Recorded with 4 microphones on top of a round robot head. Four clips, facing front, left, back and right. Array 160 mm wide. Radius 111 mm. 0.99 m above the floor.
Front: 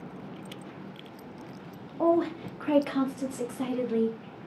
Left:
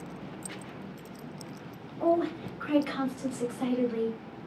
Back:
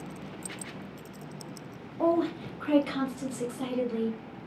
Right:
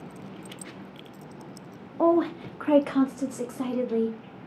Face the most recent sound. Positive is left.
turn(degrees=-60)